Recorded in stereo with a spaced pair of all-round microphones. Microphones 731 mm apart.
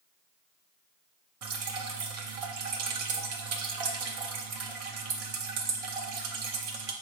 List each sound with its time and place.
1.4 s dripping: 55° right (ahead or behind), 0.6 m